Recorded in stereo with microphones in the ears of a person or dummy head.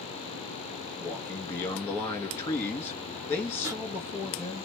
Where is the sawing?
15° right (ahead or behind), 2.5 m.